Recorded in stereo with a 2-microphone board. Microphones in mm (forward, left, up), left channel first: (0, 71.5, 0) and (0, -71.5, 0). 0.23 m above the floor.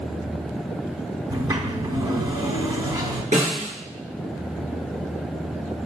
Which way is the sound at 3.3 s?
60° right (ahead or behind).